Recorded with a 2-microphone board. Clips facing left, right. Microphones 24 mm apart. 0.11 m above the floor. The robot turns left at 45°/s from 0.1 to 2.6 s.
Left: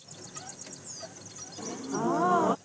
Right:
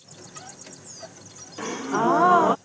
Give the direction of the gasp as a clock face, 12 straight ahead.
4 o'clock.